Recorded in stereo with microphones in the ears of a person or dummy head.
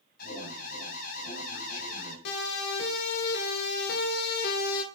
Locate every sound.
0.2 s an alarm: 50° left (ahead or behind), 9.5 m
2.2 s a siren: 55° left (ahead or behind), 7 m; by 4.8 s 50° left (ahead or behind), 3.5 m